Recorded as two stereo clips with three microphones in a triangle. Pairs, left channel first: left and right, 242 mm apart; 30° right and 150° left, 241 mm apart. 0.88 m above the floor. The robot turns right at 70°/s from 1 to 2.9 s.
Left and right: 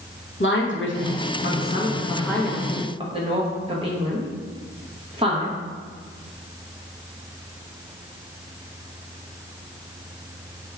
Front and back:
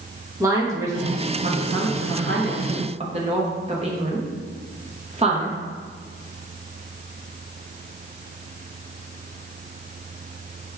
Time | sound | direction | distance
0.4 | a woman speaking | 75° left | 0.9 m